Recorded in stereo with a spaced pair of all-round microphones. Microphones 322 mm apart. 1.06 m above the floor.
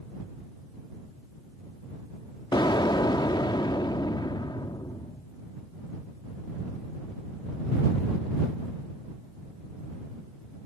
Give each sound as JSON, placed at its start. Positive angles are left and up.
{"t": 2.5, "sound": "an explosion", "side_deg": 15}